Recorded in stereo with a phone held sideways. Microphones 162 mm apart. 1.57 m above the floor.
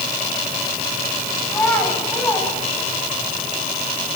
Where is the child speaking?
15° left (ahead or behind), 9 m.